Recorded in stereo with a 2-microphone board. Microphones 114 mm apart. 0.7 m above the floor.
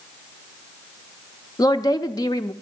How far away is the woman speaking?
About 0.7 m.